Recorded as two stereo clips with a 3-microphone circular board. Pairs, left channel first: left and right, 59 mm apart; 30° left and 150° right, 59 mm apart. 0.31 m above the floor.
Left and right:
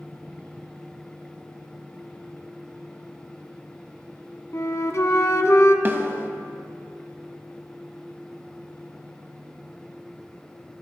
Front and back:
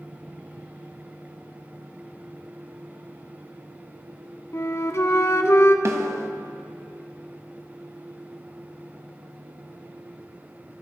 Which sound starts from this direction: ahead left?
A flute, at 4.5 s.